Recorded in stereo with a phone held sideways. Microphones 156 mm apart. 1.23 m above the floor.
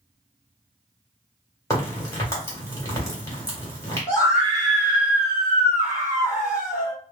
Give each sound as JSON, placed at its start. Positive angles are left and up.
{"t": 1.7, "sound": "a crack", "side_deg": 20, "distance_m": 1.7}
{"t": 4.1, "sound": "a scream", "side_deg": -10, "distance_m": 1.5}